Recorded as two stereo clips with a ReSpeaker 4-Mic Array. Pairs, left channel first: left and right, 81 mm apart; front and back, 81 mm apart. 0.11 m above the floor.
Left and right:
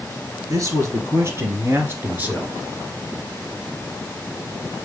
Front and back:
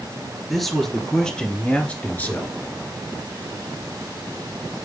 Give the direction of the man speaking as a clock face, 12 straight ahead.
3 o'clock.